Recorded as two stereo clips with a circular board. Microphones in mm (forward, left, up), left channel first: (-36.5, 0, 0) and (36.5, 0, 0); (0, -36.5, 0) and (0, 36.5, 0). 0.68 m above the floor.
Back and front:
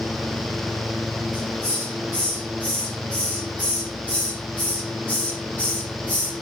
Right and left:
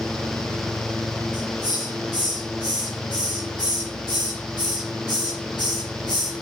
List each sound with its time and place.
1.3 s a hiss: 110° right, 8.5 m